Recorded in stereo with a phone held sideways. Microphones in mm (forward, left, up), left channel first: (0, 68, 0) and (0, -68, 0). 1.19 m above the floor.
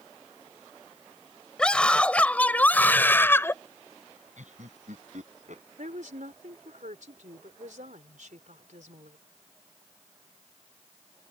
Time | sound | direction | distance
1.6 | a scream | 5° left (ahead or behind) | ?
4.4 | laughter | 65° right (ahead or behind) | ?
5.8 | a woman speaking | 70° right (ahead or behind) | ?